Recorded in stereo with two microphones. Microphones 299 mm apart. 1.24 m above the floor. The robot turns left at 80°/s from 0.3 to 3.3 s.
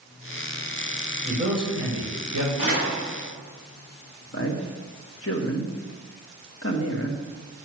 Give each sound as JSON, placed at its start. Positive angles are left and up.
{"t": 1.2, "sound": "a man speaking", "azimuth_deg": -20, "distance_m": 5.0}
{"t": 2.6, "sound": "a door slam", "azimuth_deg": -125, "distance_m": 6.0}
{"t": 4.3, "sound": "a man speaking", "side_deg": 50, "distance_m": 1.8}